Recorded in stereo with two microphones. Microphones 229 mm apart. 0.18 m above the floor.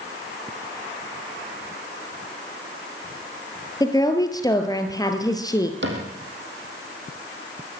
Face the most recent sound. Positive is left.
turn(degrees=-55)  # may be behind; listen again after turning